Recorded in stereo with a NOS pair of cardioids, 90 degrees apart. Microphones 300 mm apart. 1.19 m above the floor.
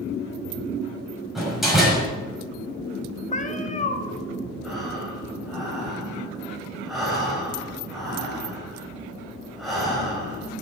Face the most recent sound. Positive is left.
turn(degrees=0)